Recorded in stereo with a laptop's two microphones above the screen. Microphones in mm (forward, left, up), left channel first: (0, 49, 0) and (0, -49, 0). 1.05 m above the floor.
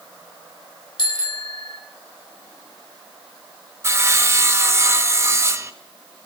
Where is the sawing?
25° right (ahead or behind), 1.1 m.